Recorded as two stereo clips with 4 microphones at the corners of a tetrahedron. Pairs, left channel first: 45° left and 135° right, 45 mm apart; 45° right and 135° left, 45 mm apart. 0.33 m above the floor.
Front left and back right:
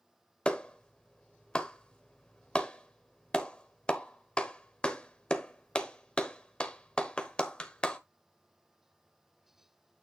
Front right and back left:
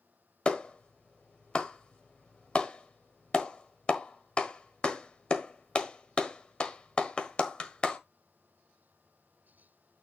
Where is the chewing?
I don't hear chewing.